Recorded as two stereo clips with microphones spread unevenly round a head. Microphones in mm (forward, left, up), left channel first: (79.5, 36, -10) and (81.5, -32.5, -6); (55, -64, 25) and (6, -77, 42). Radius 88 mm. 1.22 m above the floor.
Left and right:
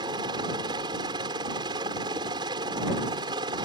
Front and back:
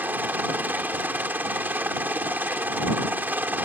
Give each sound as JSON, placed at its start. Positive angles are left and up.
{"t": 0.0, "sound": "a helicopter", "azimuth_deg": -115}